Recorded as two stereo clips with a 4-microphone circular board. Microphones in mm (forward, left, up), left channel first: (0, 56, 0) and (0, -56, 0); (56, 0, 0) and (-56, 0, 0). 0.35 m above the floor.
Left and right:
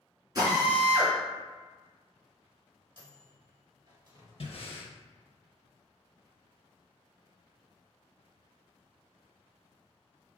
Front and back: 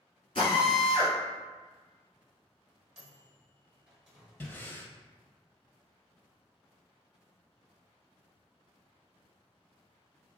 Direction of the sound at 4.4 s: 70° left.